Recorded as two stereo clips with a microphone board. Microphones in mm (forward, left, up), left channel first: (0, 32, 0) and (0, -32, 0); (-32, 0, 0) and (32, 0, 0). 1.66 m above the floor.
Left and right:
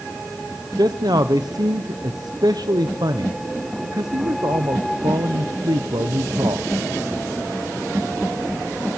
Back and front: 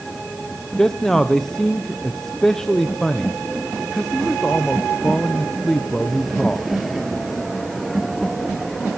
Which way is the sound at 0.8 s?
100° right.